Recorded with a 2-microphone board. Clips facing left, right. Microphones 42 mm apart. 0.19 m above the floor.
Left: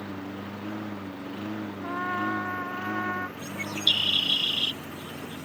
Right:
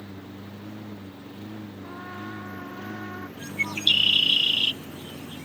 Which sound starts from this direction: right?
A bird, at 3.4 s.